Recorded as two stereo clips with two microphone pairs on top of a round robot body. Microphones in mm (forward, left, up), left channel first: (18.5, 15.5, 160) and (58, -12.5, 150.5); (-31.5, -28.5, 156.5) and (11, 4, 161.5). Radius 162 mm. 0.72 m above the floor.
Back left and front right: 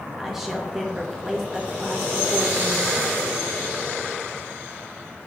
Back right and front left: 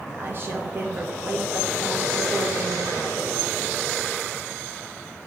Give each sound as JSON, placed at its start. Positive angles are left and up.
{"t": 0.2, "sound": "a woman speaking", "azimuth_deg": 25, "distance_m": 1.1}